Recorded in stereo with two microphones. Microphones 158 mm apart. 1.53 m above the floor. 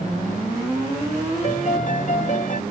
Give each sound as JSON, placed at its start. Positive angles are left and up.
{"t": 1.4, "sound": "a piano", "side_deg": 55}